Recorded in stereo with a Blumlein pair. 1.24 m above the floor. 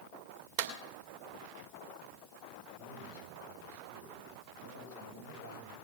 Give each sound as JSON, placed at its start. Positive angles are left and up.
{"t": 0.6, "sound": "a clap", "azimuth_deg": -50, "distance_m": 2.0}
{"t": 2.8, "sound": "a man speaking", "azimuth_deg": -70, "distance_m": 6.0}